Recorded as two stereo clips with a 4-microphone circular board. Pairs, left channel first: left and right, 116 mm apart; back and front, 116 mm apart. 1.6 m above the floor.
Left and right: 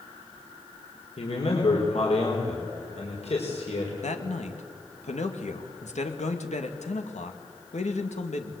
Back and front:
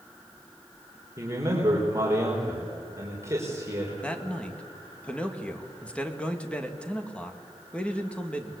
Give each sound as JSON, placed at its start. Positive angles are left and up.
{"t": 1.2, "sound": "a man speaking", "azimuth_deg": 65, "distance_m": 4.5}
{"t": 4.0, "sound": "a man speaking", "azimuth_deg": 100, "distance_m": 2.5}